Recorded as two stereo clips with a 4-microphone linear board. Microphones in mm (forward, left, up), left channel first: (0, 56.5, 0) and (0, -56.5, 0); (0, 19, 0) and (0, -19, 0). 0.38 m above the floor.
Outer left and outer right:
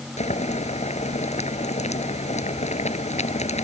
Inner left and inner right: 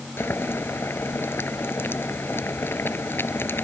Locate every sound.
0.2 s boiling: 80° left